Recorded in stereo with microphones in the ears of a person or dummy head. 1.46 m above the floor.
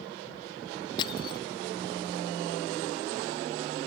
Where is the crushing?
25° left (ahead or behind).